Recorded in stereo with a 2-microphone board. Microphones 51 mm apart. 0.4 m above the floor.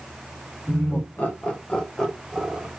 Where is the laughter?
40° left (ahead or behind), 1.4 m; by 2.7 s 5° right (ahead or behind), 1.4 m.